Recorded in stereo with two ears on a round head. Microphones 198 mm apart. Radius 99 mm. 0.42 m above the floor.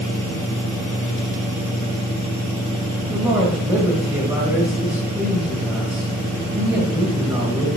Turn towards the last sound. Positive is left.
turn(degrees=-5)  # may be behind; listen again after turning